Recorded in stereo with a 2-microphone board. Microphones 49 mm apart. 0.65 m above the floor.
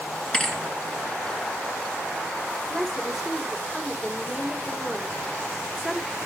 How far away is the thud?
About 2 m.